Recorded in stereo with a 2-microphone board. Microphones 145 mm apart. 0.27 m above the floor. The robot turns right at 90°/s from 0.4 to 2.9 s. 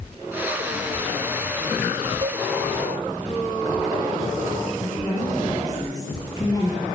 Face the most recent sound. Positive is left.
turn(degrees=25)  # may be behind; listen again after turning